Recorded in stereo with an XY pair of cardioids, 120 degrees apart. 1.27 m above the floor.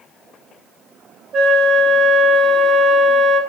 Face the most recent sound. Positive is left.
turn(degrees=-40)